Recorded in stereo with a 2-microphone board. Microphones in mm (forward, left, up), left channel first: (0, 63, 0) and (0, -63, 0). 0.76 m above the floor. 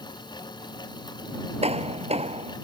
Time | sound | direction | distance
1.6 | hammering | 55° right (ahead or behind) | ?